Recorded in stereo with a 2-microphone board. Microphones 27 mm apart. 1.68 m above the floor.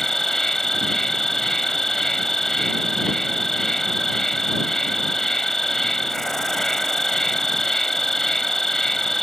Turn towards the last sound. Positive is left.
turn(degrees=15)  # may be behind; listen again after turning